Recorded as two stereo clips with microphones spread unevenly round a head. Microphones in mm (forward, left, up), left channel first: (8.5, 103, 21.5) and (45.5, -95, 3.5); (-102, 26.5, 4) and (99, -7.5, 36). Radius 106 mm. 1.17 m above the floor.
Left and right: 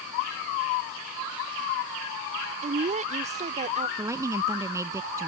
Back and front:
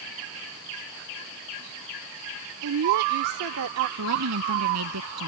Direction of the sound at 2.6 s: 25° right.